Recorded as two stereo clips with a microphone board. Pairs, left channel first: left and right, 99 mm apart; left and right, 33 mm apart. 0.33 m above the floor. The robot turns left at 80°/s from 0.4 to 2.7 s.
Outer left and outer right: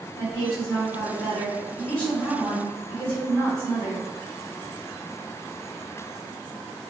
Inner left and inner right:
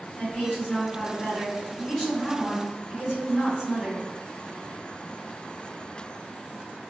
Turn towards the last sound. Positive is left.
turn(degrees=-40)